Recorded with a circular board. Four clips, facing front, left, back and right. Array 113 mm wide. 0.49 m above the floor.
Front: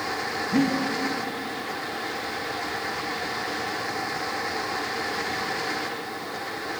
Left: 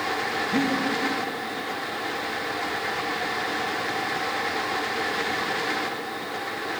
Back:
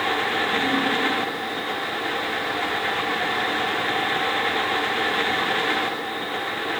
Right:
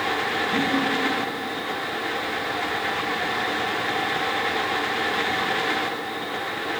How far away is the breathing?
About 4.5 m.